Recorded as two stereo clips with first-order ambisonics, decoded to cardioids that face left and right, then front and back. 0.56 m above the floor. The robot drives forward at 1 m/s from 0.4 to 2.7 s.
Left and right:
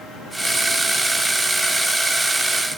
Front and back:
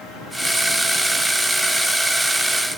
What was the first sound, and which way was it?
Only background noise.